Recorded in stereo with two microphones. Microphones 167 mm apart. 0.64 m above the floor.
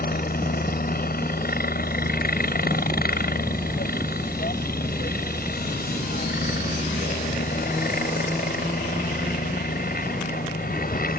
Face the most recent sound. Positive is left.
turn(degrees=65)  # may be behind; listen again after turning